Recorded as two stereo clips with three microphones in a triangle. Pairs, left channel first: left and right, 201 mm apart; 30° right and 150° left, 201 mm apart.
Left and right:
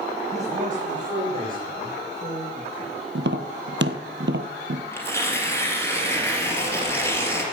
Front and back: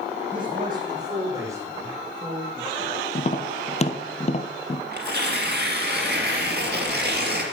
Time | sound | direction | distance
0.3 | a man speaking | 145° right | 5.5 m
3.1 | tapping | 85° right | 1.0 m
4.9 | tearing paper | 165° left | 2.5 m